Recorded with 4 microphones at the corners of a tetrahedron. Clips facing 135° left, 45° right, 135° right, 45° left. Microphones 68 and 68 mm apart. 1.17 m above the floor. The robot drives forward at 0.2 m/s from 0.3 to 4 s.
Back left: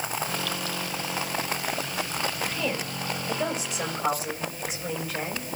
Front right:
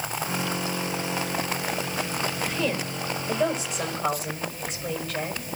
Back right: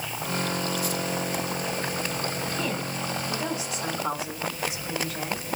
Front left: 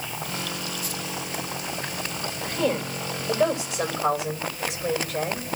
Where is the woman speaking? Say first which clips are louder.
Front right 2 dB, front left 4 dB; 45° left, 5.5 m; by 5.4 s 50° left, 5.5 m.